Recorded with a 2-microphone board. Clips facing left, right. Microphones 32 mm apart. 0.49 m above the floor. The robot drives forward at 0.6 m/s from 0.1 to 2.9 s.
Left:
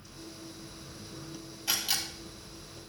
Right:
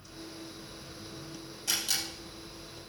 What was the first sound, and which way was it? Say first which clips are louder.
A camera shutter: left 1 dB; 20° left (ahead or behind).